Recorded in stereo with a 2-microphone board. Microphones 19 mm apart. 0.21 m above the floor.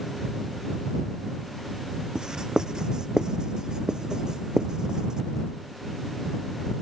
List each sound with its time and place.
2.1 s writing: 35° right (ahead or behind)